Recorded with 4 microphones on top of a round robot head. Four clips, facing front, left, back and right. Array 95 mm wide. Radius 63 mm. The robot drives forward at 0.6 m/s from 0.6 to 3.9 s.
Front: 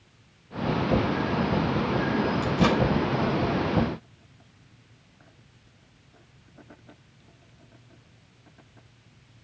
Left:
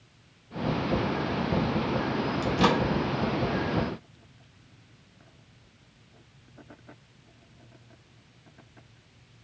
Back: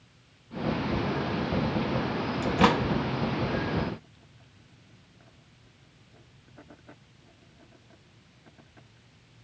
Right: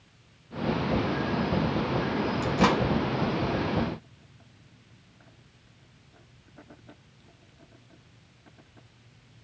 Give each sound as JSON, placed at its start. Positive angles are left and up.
{"t": 2.4, "sound": "a microwave", "azimuth_deg": -145, "distance_m": 1.3}